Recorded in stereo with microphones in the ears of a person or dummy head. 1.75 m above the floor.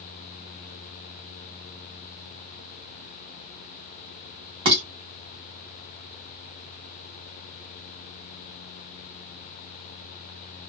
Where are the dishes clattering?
25° right (ahead or behind), 1.2 m.